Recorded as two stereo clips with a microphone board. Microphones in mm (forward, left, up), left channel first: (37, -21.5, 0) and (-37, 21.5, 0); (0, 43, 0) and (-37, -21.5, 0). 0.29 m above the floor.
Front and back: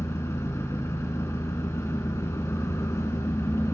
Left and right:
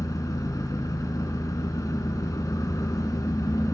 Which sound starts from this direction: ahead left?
An engine running, at 0.0 s.